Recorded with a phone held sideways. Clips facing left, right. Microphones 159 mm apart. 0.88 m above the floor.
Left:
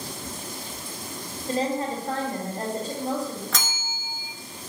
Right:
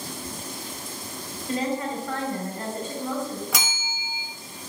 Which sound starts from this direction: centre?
A bell, at 3.5 s.